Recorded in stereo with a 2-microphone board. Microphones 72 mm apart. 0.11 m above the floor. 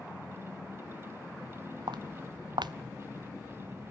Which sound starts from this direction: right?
Footsteps, at 1.9 s.